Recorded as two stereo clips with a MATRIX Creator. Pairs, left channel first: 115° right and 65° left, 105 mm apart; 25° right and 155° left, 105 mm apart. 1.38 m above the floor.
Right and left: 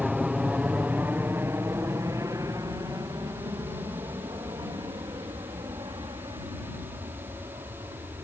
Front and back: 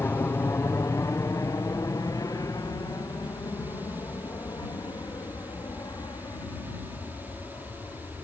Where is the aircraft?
10° right; by 8.2 s 30° left.